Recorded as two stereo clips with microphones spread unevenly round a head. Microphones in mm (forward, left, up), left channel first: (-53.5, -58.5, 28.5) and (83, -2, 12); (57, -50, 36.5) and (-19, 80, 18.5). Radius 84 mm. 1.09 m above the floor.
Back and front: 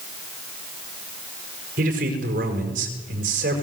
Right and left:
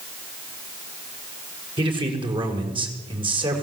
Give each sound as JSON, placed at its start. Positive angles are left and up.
{"t": 1.8, "sound": "a man speaking", "azimuth_deg": 65, "distance_m": 5.5}